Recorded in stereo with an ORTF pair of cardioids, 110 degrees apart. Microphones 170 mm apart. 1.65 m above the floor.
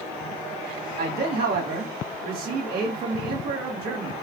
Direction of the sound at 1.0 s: 60° right.